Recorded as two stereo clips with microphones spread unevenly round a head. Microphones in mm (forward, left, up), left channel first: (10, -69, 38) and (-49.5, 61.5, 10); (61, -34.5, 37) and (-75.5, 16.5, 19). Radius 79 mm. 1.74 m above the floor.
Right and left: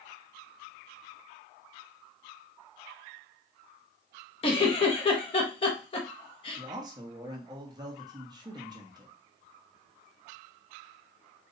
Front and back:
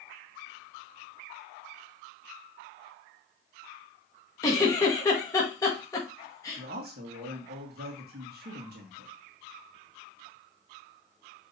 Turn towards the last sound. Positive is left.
turn(degrees=180)